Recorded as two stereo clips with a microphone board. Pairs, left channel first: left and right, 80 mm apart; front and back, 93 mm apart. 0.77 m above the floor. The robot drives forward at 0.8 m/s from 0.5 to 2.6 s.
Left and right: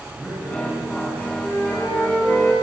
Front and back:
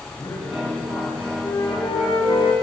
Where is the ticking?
No ticking in this recording.